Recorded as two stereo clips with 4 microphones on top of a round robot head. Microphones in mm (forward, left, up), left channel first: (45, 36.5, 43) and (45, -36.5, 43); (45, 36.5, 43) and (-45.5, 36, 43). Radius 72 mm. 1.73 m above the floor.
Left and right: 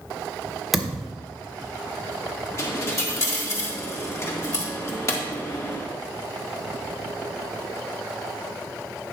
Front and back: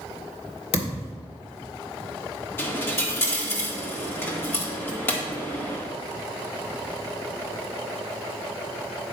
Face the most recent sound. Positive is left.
turn(degrees=55)